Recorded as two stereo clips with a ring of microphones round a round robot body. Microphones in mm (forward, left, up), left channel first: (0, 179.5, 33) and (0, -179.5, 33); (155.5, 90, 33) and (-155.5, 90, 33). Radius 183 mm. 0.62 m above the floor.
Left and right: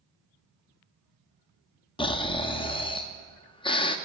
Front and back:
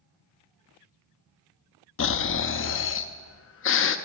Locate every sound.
2.0 s snoring: 20° left, 0.6 m